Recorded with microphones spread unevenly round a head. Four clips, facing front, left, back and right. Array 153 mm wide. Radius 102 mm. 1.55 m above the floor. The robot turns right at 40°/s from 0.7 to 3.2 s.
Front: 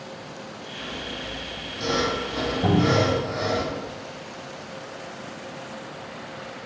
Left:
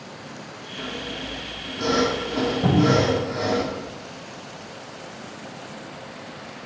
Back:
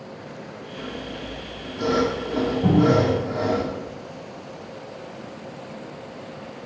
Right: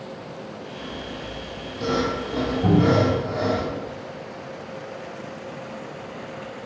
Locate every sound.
0.8 s sawing: 115° left, 1.8 m; by 3.6 s 150° right, 1.8 m
2.6 s a cupboard door: 45° left, 4 m; by 3.1 s 65° left, 4 m